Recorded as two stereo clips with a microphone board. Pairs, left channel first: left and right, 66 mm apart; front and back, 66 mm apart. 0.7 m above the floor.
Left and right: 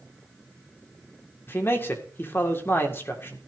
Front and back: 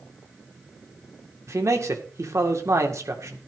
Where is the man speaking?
140° left, 1.9 m.